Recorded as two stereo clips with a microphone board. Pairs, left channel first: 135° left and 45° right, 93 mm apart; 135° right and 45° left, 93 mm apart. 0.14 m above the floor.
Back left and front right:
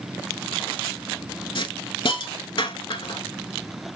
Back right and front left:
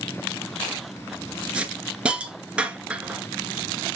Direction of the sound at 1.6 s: 120° left.